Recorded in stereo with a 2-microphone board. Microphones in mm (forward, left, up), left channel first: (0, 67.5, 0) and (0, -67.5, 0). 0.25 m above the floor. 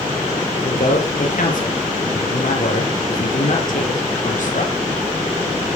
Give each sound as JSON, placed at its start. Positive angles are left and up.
{"t": 0.6, "sound": "a man speaking", "side_deg": 70, "distance_m": 5.0}